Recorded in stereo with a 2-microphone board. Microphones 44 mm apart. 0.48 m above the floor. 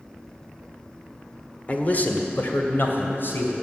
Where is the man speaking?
35° left (ahead or behind), 1.3 m; by 3.5 s 60° left (ahead or behind), 3 m.